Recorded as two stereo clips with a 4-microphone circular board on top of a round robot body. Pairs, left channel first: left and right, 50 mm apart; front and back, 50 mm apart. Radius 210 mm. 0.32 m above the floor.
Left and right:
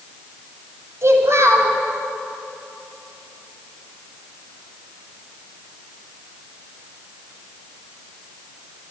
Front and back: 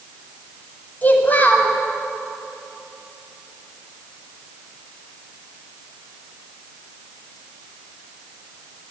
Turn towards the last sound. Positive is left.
turn(degrees=-60)